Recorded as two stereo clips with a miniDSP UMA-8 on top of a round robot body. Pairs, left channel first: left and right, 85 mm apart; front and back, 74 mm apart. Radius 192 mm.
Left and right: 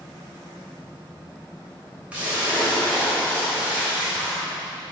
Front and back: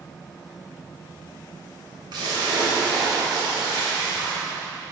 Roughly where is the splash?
Behind.